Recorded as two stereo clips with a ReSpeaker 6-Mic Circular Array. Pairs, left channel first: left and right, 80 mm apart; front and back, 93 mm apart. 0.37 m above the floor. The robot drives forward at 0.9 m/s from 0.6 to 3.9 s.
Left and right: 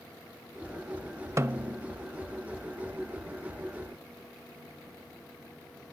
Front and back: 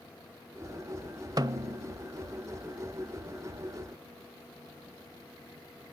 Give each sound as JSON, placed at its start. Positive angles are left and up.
{"t": 1.4, "sound": "a snare drum", "azimuth_deg": -140, "distance_m": 0.5}